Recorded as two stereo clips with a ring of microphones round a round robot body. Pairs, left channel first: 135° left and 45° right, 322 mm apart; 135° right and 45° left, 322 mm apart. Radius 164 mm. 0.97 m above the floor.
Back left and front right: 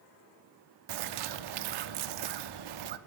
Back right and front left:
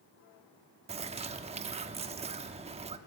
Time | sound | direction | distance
0.9 | a bird | 25° right | 1.0 m